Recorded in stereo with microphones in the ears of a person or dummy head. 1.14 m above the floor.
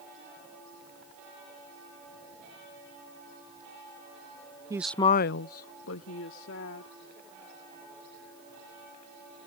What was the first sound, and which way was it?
A woman speaking, 15° right (ahead or behind).